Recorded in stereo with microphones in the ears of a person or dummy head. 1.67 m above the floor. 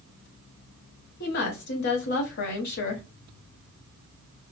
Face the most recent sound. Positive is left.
turn(degrees=45)  # may be behind; listen again after turning